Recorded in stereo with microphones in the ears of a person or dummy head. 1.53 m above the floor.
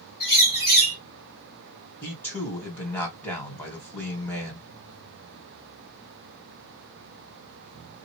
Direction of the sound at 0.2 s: 20° left (ahead or behind).